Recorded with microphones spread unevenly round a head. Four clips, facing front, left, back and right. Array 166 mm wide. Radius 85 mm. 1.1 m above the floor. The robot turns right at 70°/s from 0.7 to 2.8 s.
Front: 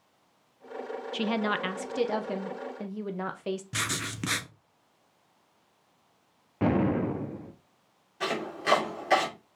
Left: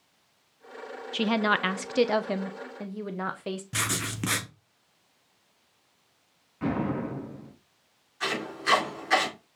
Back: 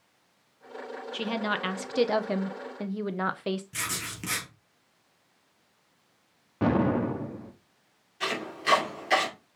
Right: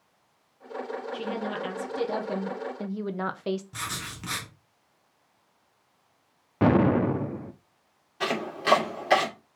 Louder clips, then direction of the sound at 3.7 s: Left 4 dB, front 3 dB; 60° left.